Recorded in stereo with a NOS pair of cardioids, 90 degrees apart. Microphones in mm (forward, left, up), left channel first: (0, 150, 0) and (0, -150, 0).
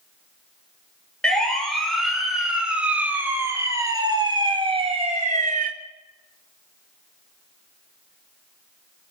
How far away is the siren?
About 5 m.